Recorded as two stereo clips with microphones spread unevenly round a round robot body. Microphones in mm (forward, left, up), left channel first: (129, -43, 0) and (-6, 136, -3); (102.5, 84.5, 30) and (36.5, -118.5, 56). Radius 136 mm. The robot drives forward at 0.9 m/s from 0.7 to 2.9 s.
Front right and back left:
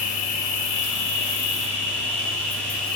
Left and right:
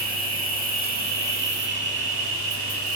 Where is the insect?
60° right, 3.5 m; by 3.0 s 95° right, 3 m.